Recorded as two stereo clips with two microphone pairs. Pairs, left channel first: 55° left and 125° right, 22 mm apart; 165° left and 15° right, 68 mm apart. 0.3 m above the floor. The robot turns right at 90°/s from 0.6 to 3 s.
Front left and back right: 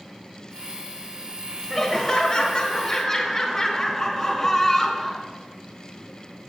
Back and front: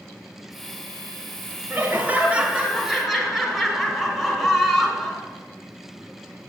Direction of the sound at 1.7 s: 35° right.